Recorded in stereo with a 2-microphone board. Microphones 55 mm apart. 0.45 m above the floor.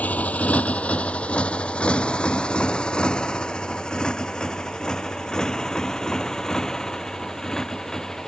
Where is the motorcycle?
30° left (ahead or behind); by 8.3 s 10° left (ahead or behind).